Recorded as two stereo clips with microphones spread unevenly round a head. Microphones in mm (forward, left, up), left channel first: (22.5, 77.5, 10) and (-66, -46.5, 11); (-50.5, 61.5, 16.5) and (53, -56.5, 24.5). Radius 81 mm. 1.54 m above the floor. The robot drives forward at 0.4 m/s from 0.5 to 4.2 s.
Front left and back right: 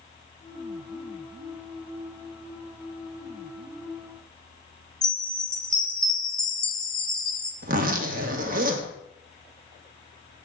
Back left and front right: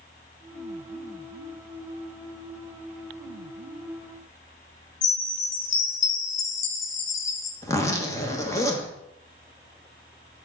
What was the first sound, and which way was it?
A chime, 140° left.